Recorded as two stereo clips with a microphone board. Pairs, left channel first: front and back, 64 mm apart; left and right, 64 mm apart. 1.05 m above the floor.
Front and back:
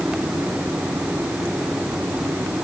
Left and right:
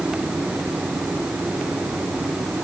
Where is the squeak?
No squeak in this recording.